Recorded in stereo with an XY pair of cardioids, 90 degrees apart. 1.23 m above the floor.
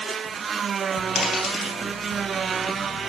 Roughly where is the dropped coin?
Left.